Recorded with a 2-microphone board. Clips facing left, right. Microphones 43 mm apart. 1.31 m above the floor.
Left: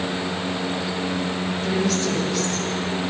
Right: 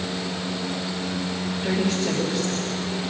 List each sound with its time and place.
1.6 s a woman speaking: 15° right (ahead or behind), 6.5 m